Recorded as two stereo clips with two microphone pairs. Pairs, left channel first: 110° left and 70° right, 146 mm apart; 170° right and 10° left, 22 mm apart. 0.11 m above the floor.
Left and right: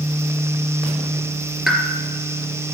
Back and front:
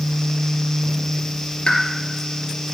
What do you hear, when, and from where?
1.7 s a pop: 155° right, 2.5 m